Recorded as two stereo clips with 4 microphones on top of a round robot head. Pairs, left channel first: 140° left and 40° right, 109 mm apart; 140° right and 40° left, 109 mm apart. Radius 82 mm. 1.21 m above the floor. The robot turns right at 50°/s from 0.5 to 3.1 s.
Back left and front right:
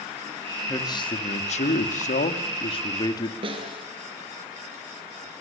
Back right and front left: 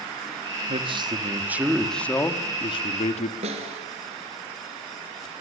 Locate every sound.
0.7 s a man speaking: 75° left, 2.0 m; by 3.3 s 165° right, 2.0 m
3.4 s a snare drum: 5° left, 4 m